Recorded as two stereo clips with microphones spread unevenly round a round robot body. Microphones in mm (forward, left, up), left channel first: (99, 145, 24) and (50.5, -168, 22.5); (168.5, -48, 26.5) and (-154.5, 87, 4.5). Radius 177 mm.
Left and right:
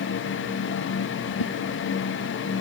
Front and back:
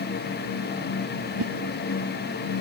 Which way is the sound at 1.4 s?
115° left.